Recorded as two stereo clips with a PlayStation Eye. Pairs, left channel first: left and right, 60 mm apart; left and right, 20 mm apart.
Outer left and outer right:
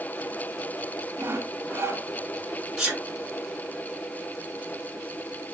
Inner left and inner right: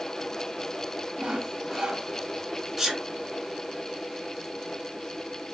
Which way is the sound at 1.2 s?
40° right (ahead or behind).